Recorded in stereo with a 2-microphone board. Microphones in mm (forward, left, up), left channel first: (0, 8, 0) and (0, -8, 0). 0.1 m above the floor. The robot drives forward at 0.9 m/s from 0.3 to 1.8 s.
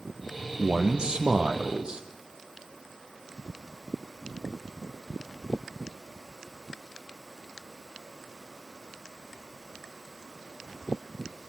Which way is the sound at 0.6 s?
60° right (ahead or behind).